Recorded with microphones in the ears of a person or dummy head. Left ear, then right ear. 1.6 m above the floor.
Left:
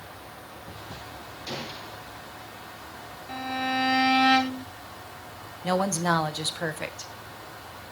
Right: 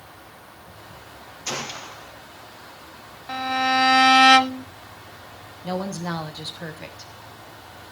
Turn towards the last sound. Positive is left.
turn(degrees=25)  # may be behind; listen again after turning